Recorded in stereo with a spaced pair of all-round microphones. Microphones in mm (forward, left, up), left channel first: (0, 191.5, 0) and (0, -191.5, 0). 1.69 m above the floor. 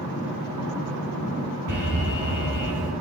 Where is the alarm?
50° right (ahead or behind), 3.5 m.